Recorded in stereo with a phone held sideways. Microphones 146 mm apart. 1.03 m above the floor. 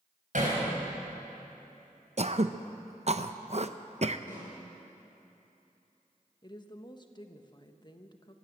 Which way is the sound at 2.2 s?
50° right (ahead or behind).